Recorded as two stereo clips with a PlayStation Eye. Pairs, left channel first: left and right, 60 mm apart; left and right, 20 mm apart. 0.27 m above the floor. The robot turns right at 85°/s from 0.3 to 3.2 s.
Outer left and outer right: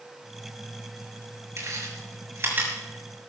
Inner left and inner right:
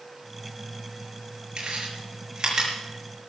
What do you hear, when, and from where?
1.6 s chewing: 55° right (ahead or behind), 5.5 m; by 2.7 s 20° right (ahead or behind), 5.5 m